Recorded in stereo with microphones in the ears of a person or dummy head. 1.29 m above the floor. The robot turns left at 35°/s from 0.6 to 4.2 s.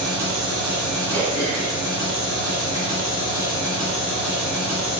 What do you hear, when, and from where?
0.0 s an engine running: 65° right, 1.3 m; by 5.0 s 165° left, 1.3 m
1.1 s throat clearing: 30° right (ahead or behind), 0.7 m; by 2.8 s 25° left (ahead or behind), 0.7 m